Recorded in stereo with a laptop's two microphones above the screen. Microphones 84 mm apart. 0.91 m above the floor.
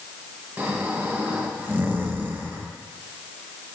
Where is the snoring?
25° right (ahead or behind), 0.9 m.